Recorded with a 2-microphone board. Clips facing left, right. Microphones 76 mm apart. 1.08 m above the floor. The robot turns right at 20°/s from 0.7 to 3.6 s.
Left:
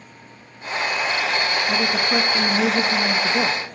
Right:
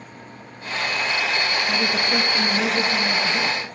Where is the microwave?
No microwave in this recording.